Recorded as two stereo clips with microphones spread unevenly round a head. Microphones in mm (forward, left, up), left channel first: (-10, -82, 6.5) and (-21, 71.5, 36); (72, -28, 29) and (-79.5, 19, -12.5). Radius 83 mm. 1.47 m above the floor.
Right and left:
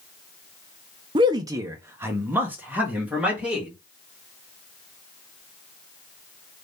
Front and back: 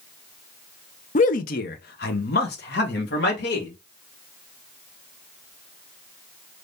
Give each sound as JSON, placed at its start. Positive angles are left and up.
{"t": 1.1, "sound": "a man speaking", "azimuth_deg": 30, "distance_m": 0.5}